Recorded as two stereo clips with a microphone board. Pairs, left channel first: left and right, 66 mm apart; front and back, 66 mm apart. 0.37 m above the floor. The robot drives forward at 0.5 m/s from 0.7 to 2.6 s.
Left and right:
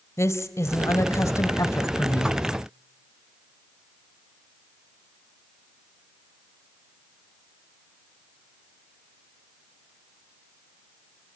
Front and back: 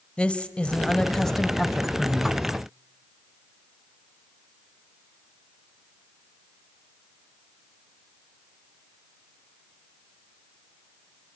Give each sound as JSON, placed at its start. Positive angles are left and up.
{"t": 0.2, "sound": "a woman speaking", "azimuth_deg": 70, "distance_m": 1.6}